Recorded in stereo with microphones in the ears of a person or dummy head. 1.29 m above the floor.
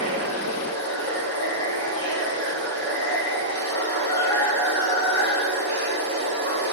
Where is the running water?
20° left (ahead or behind), 2 m.